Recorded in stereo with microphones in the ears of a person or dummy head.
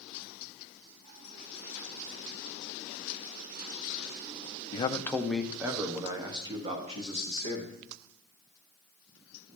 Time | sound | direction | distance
4.7 | a man speaking | 35° left (ahead or behind) | 0.6 m